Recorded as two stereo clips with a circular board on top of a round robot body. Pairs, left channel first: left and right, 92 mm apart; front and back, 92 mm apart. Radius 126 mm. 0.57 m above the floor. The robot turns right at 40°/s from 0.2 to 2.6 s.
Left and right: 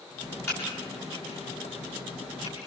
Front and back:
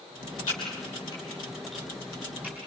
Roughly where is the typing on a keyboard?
Ahead left.